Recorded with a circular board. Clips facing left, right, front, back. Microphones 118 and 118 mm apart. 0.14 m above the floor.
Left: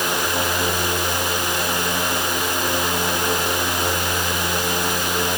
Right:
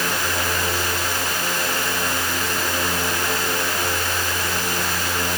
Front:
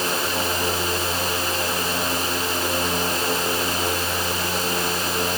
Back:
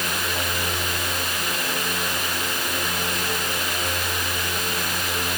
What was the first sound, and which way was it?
Only background noise.